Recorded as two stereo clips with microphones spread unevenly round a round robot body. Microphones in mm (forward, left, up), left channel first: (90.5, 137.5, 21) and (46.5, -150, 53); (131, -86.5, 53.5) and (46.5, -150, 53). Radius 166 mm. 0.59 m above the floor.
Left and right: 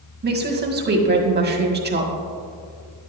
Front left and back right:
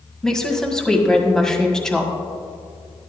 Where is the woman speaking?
45° right, 1.8 m.